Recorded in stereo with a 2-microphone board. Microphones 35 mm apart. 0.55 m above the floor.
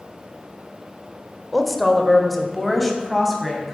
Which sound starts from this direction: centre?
A woman speaking, at 1.5 s.